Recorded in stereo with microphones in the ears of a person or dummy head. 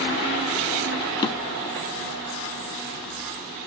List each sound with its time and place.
1.2 s a drawer: 20° left (ahead or behind), 1.0 m